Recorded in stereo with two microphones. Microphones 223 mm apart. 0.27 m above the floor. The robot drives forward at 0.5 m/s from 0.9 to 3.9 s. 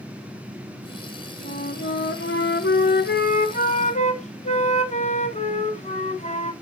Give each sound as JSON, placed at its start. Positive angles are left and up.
{"t": 1.4, "sound": "a flute", "side_deg": 40, "distance_m": 0.8}